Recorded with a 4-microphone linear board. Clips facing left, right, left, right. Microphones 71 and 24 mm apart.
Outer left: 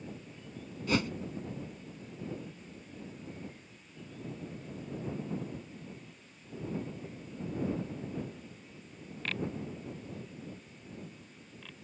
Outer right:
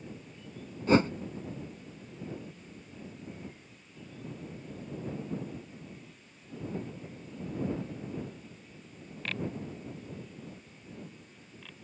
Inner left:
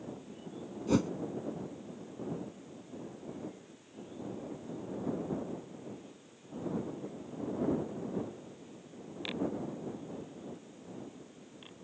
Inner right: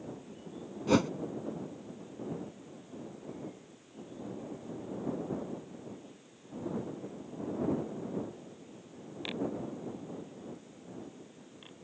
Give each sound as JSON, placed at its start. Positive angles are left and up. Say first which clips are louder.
{"t": 0.9, "sound": "a whoosh", "louder": "outer right 7 dB, inner right 3 dB", "side_deg": -30}